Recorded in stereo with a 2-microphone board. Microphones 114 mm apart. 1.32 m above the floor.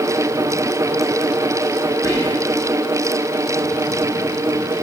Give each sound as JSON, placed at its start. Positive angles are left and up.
{"t": 2.0, "sound": "whispering", "side_deg": 35, "distance_m": 2.5}